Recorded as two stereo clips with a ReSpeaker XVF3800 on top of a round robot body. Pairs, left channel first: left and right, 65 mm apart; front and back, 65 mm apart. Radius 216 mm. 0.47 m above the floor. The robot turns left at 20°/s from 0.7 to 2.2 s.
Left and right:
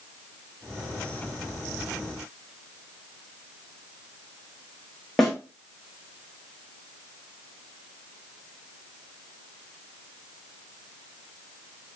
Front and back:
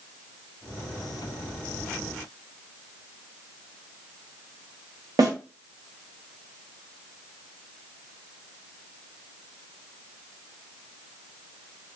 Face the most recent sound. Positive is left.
turn(degrees=175)